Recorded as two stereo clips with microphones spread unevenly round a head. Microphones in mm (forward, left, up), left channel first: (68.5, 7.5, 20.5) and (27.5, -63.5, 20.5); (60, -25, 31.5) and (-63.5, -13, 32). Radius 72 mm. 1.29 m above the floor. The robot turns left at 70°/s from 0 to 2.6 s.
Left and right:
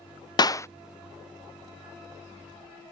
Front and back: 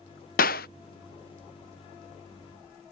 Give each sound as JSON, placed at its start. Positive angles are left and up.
{"t": 0.4, "sound": "a clap", "azimuth_deg": 20}